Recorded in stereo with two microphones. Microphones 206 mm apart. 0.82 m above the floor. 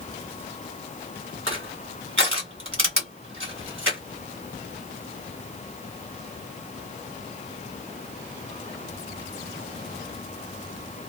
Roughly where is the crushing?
Right.